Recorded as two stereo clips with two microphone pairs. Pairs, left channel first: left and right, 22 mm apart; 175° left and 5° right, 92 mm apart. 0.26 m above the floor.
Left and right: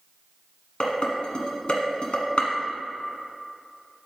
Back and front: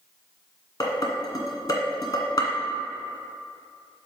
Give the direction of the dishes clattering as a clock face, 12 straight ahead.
8 o'clock.